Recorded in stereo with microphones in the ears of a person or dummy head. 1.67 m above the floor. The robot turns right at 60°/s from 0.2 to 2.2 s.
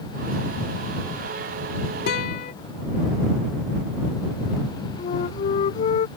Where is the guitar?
70° left (ahead or behind); by 2.5 s 65° left (ahead or behind).